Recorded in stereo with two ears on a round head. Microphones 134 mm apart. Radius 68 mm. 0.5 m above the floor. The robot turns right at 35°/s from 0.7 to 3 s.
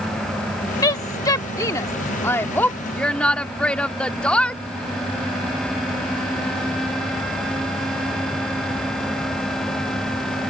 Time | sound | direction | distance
0.8 | a woman speaking | 25° left (ahead or behind) | ?